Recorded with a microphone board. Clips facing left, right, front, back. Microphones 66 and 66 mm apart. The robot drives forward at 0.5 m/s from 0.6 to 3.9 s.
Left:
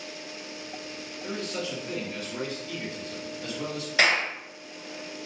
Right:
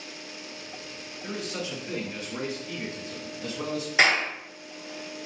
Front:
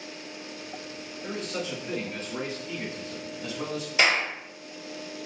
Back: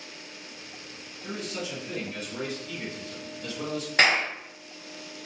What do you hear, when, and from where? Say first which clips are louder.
1.2 s a man speaking: left 1 dB, front 1 dB; 20° right, 1.8 m; by 3.9 s 80° right, 1.2 m
4.0 s a clap: right 1 dB, back 1 dB; 165° right, 2 m